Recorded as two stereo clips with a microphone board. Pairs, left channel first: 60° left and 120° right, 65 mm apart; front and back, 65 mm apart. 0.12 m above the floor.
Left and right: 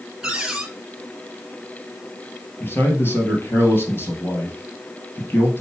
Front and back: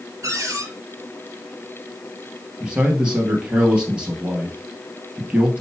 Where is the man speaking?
110° left, 2.5 m.